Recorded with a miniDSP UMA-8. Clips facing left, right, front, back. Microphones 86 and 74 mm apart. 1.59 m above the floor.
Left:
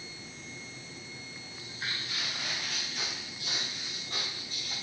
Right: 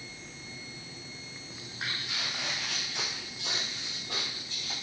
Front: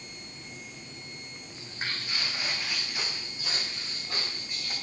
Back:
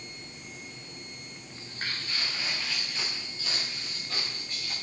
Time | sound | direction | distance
1.5 | footsteps | 75° right | 4 m